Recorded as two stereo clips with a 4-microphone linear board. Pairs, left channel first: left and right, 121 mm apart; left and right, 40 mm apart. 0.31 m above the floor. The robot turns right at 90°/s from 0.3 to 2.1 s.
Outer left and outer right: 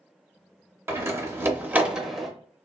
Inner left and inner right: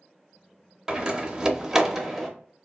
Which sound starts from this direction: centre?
A door slam, at 0.9 s.